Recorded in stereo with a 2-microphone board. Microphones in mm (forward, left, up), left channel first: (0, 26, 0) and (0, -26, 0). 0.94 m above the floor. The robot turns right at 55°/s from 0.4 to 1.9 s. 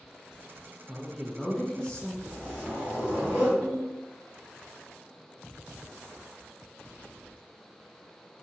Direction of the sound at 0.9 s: Centre (ahead or behind).